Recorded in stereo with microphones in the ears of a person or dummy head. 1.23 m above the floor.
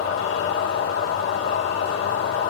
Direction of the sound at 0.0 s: 75° left (ahead or behind).